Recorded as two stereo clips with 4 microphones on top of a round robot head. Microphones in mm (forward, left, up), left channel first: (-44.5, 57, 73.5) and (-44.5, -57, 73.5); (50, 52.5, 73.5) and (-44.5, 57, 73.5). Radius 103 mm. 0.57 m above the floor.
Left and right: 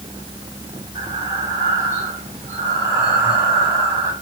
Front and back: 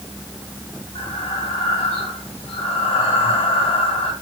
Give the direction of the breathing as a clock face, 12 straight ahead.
1 o'clock.